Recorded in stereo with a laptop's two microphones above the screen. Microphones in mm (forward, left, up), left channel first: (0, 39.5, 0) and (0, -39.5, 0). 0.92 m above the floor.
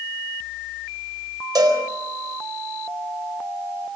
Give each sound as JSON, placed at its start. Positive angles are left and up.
{"t": 1.6, "sound": "a cowbell", "side_deg": -50, "distance_m": 4.0}